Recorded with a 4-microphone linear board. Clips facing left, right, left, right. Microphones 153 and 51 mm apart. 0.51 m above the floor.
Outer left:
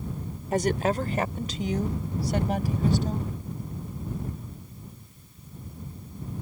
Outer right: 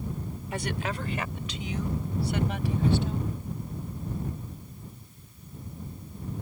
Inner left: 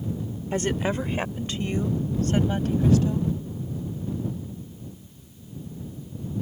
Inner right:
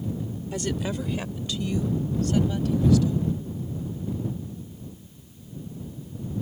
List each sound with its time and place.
0.5 s a woman speaking: 40° left (ahead or behind)